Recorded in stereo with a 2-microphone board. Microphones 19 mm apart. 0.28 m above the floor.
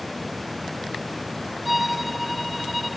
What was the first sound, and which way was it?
A violin, 5° right (ahead or behind).